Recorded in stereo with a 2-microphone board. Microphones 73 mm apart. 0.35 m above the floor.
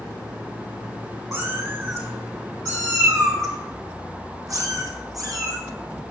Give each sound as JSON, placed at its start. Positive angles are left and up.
{"t": 1.3, "sound": "a cat meowing", "side_deg": -35, "distance_m": 6.5}